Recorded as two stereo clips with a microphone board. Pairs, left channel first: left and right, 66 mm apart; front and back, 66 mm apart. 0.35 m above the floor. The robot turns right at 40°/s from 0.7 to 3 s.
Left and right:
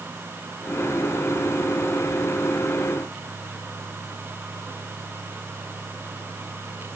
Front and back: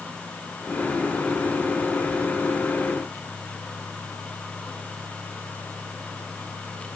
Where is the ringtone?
I don't hear a ringtone.